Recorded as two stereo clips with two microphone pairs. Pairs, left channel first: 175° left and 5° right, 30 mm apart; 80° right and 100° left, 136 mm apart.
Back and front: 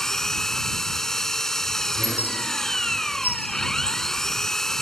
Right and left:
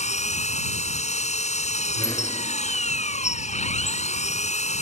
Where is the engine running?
110° right.